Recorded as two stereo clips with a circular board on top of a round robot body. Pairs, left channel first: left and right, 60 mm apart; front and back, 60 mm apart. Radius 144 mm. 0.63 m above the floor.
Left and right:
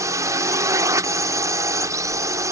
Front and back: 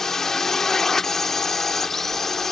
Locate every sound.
0.0 s a drone: 80° right; by 2.5 s 85° right